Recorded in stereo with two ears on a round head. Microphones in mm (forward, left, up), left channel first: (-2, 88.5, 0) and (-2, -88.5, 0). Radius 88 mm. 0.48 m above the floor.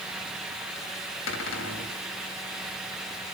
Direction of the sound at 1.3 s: 70° left (ahead or behind).